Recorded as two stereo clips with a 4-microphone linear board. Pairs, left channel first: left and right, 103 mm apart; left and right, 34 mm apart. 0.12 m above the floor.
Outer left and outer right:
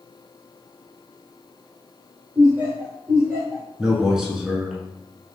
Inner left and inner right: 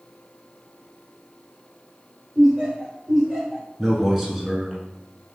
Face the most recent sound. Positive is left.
turn(degrees=-5)  # may be behind; listen again after turning